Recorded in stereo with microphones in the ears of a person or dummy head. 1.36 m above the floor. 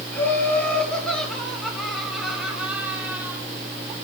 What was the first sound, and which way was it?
Laughter, 10° left (ahead or behind).